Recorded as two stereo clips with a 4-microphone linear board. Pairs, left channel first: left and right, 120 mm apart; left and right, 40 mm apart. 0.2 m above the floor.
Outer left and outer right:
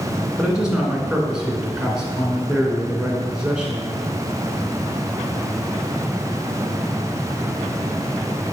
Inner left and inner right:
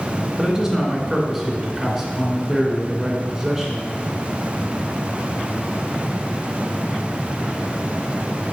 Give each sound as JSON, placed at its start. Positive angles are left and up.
{"t": 0.4, "sound": "a man speaking", "side_deg": -5, "distance_m": 2.0}